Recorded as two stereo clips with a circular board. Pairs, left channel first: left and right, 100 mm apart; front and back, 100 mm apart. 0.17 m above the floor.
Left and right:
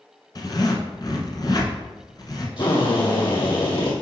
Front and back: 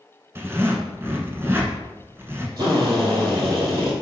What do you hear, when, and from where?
0.3 s a zipper: 120° left, 1.3 m
2.6 s a drill: 130° left, 2.5 m